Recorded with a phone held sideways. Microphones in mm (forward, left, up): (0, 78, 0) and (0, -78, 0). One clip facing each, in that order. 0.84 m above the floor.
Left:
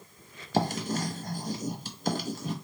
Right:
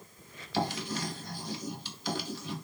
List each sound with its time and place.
0.5 s writing: 45° left (ahead or behind), 0.6 m